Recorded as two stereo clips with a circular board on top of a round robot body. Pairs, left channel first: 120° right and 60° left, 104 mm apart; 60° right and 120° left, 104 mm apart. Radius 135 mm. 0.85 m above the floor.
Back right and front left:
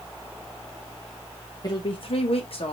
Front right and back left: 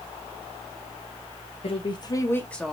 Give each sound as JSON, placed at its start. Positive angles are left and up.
{"t": 1.6, "sound": "a woman speaking", "azimuth_deg": -75, "distance_m": 1.2}